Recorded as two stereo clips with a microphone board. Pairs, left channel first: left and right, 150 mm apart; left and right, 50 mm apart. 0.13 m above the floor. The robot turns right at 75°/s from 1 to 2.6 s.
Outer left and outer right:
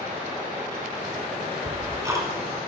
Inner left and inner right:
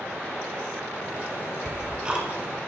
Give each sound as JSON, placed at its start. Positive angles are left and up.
{"t": 1.6, "sound": "ticking", "side_deg": -15, "distance_m": 1.6}